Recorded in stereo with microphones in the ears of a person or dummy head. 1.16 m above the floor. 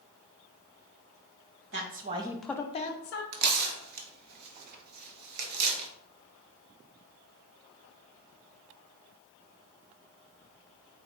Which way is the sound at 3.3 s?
50° right (ahead or behind).